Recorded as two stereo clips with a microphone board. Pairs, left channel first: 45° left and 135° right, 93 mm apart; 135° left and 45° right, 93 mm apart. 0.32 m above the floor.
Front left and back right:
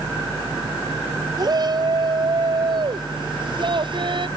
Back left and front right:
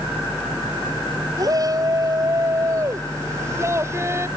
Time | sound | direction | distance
1.4 | a shout | 90° right | ?